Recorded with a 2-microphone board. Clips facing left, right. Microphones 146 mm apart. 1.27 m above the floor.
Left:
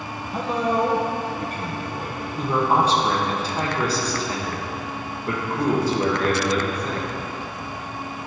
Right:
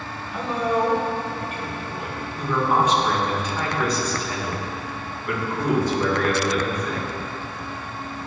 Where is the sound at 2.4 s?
35° left (ahead or behind), 1.9 m.